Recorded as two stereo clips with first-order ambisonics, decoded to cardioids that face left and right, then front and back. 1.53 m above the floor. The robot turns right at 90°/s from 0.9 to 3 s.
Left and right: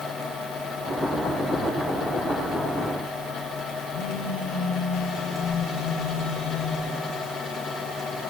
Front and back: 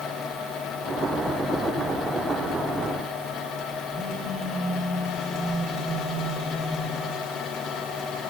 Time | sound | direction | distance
3.9 | a phone buzzing | 110° left | 9.5 m